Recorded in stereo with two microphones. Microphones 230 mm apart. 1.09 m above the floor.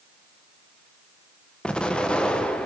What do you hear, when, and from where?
1.6 s an explosion: 5° left (ahead or behind), 0.7 m